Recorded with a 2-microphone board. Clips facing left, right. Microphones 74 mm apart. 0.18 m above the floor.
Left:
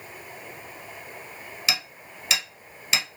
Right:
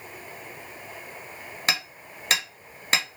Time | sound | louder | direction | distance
1.7 | hammering | right 2 dB | 50° right (ahead or behind) | 1.1 m